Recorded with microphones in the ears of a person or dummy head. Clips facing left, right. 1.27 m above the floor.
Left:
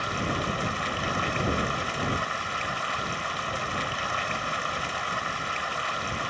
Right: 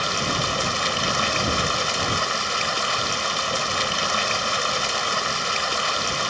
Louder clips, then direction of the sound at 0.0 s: Right 3 dB; 55° right (ahead or behind).